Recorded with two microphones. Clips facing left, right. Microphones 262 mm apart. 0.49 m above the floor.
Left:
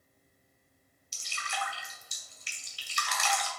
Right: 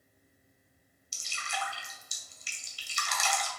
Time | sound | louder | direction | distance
1.1 | dripping | even | 65° left (ahead or behind) | 2.0 m